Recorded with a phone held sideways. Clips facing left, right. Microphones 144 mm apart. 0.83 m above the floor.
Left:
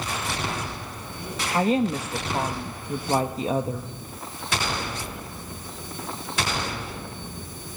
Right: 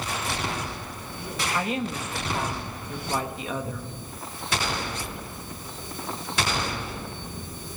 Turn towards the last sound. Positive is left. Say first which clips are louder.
# left 8 dB
turn(degrees=35)  # may be behind; listen again after turning